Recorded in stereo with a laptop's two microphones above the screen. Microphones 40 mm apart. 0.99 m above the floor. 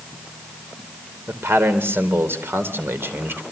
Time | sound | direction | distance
1.3 | a man speaking | 85° right | 3.5 m